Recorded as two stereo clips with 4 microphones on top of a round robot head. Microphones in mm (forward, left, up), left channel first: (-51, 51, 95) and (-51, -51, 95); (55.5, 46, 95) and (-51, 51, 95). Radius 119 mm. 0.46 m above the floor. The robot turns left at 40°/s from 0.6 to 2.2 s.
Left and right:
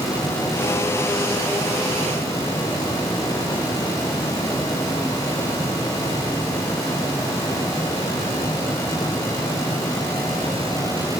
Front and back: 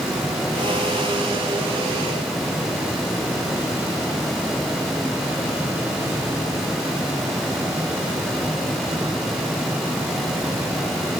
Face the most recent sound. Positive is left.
No sound to turn to.